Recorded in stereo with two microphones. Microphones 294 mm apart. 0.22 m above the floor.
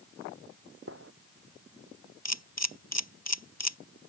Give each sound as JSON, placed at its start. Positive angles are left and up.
{"t": 0.9, "sound": "a gunshot", "side_deg": -45}
{"t": 2.2, "sound": "a camera shutter", "side_deg": 60}